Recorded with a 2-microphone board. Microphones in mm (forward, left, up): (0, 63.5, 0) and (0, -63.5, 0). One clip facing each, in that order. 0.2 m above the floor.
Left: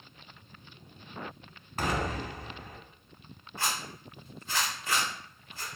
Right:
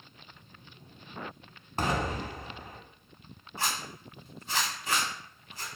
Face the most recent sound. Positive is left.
turn(degrees=-15)  # may be behind; listen again after turning